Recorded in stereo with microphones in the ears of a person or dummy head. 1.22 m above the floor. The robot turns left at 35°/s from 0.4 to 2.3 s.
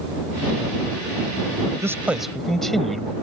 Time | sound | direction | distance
1.6 | a man speaking | 20° right (ahead or behind) | ?